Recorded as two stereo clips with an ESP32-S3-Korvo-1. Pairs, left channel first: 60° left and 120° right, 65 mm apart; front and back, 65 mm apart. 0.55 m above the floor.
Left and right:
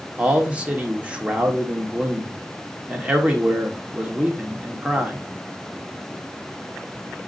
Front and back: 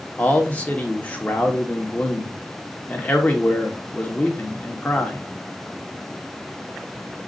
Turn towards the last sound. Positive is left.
turn(degrees=-55)